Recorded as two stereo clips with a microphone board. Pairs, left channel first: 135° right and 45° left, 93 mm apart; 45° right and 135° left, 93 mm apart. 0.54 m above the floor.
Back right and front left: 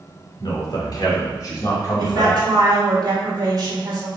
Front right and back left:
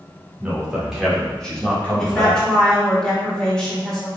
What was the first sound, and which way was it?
A man speaking, 150° right.